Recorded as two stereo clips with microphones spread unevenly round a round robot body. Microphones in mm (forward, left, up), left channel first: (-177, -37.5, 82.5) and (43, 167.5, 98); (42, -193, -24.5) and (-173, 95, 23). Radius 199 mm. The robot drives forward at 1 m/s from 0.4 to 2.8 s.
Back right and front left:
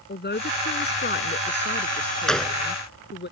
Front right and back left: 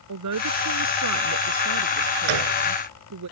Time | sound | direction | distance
0.1 | a man speaking | 165° left | ?
2.3 | a gunshot | 135° left | ?